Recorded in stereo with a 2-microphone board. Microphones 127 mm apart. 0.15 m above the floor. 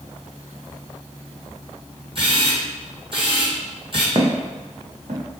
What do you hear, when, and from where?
2.1 s a camera shutter: 45° right (ahead or behind), 1.4 m
4.2 s footsteps: 35° right (ahead or behind), 0.6 m; by 5.2 s 70° right (ahead or behind), 1.3 m